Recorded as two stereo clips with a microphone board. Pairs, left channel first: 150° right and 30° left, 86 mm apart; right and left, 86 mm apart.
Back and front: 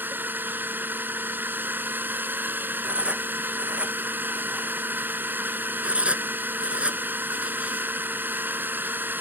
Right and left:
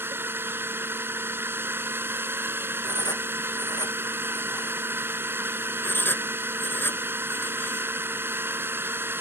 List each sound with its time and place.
0.0 s a drone: 65° left
2.8 s writing: 50° right
5.8 s writing: 40° right